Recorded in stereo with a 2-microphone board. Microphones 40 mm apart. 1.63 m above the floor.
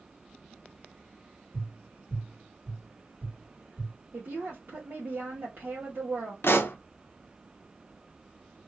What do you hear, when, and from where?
1.5 s tapping: 10° right (ahead or behind), 1.5 m
4.1 s a woman speaking: 55° right (ahead or behind), 1.0 m
6.4 s a pop: 70° left (ahead or behind), 0.5 m